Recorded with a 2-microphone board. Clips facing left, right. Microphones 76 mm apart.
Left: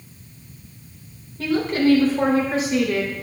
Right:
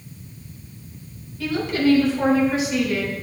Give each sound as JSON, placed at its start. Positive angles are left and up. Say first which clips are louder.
{"t": 1.4, "sound": "a woman speaking", "louder": "left 2 dB", "side_deg": 35, "distance_m": 3.0}